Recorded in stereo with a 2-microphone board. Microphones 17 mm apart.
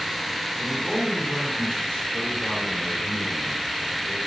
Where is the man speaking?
80° left, 5.5 m.